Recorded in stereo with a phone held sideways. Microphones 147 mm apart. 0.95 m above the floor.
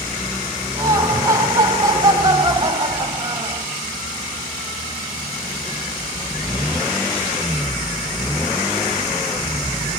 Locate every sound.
0.8 s laughter: 25° right (ahead or behind), 7.5 m